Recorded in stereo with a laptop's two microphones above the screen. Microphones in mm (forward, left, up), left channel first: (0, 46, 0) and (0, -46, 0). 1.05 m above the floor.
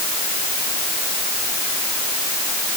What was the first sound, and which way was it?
Only background noise.